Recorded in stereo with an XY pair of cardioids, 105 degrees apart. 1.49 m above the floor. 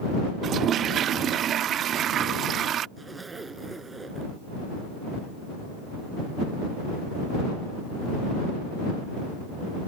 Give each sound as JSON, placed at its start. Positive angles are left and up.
{"t": 0.4, "sound": "a toilet flushing", "azimuth_deg": -65}
{"t": 3.0, "sound": "a zipper", "azimuth_deg": -25}